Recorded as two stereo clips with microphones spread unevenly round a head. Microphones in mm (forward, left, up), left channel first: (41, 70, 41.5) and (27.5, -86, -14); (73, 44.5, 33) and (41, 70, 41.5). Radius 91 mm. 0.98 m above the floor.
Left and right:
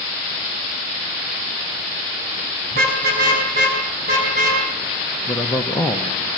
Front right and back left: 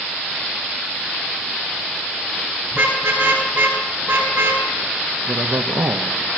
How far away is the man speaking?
About 1.8 m.